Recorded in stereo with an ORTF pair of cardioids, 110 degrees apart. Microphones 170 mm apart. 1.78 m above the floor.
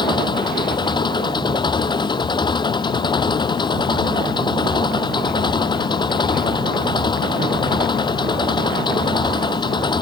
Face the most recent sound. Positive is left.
turn(degrees=25)